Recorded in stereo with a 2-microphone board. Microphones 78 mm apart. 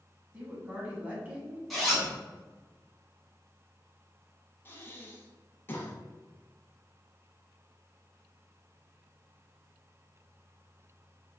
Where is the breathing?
30° left (ahead or behind), 0.8 m.